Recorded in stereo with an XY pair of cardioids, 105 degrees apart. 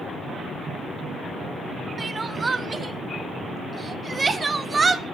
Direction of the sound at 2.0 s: 30° right.